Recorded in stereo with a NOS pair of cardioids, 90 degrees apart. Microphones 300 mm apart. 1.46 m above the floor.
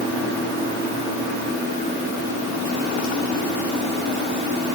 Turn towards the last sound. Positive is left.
No sound to turn to.